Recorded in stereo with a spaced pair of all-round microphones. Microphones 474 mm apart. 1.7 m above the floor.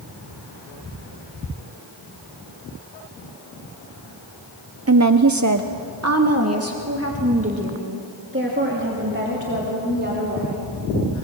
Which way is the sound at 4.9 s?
30° right (ahead or behind).